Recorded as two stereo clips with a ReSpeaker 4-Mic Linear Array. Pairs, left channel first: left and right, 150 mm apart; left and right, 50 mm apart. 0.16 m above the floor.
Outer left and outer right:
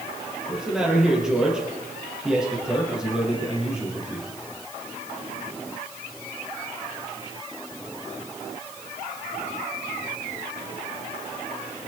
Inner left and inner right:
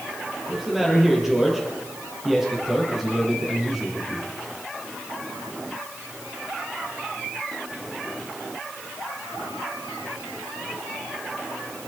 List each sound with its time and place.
0.5 s a man speaking: 5° right (ahead or behind), 5 m